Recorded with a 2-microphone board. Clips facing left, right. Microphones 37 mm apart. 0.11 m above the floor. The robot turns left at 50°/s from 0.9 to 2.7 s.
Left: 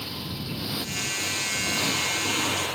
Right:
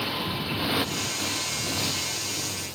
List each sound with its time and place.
0.0 s a motorcycle: 150° right; by 2.8 s 120° left